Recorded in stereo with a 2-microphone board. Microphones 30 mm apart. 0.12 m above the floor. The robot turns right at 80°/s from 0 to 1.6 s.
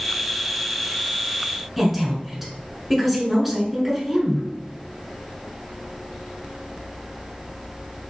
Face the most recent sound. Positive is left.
turn(degrees=-5)  # may be behind; listen again after turning